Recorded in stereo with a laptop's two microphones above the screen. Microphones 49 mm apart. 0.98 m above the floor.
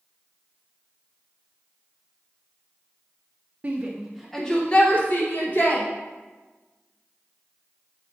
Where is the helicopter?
I don't hear a helicopter.